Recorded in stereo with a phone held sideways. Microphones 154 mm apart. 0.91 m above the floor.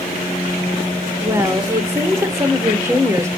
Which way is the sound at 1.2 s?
15° right (ahead or behind).